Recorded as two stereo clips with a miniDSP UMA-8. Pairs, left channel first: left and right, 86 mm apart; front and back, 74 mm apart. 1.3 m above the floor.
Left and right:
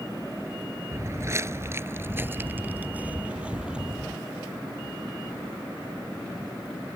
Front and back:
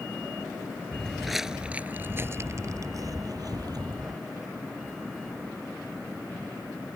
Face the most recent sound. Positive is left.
turn(degrees=-170)